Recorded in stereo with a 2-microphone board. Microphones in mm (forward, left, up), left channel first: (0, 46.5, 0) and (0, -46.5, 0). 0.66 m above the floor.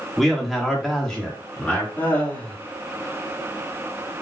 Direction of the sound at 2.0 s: 15° left (ahead or behind).